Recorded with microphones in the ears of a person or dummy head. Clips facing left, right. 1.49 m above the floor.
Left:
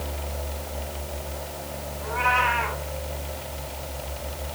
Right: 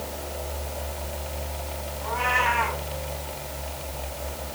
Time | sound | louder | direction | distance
2.0 | a cat meowing | left 1 dB | 70° right (ahead or behind) | 6 m